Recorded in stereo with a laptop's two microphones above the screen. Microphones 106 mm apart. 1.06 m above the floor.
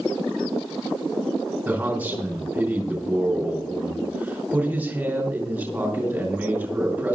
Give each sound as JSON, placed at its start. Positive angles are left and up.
{"t": 1.6, "sound": "a man speaking", "side_deg": -15, "distance_m": 3.5}